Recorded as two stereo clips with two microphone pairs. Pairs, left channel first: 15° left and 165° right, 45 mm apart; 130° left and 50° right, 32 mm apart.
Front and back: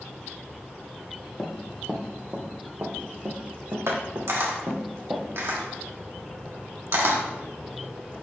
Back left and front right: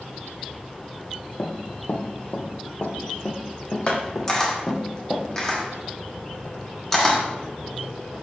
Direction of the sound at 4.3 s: 155° right.